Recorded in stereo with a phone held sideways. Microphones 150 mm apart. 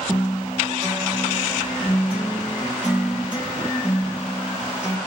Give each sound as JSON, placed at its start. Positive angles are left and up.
{"t": 0.1, "sound": "a guitar", "side_deg": -10, "distance_m": 1.2}